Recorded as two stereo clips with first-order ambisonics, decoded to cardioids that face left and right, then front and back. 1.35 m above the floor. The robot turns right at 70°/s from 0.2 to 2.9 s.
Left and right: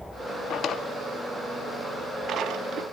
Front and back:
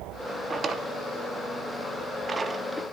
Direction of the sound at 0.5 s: 115° left.